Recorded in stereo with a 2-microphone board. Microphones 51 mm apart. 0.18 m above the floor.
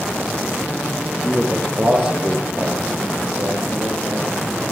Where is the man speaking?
40° right (ahead or behind), 4.5 m; by 4.2 s 75° right (ahead or behind), 7.5 m.